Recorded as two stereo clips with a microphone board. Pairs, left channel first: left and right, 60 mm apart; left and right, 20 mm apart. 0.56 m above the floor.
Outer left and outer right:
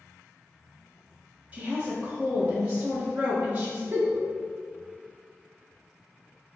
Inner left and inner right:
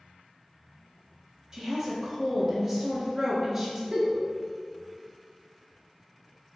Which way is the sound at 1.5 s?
25° right (ahead or behind).